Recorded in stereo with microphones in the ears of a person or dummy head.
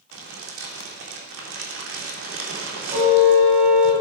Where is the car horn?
35° right (ahead or behind), 4 m.